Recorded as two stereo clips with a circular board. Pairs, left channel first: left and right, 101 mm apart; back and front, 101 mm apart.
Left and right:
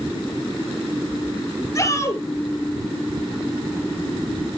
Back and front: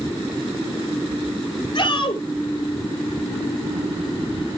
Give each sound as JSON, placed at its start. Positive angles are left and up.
{"t": 1.8, "sound": "a shout", "azimuth_deg": 140, "distance_m": 2.5}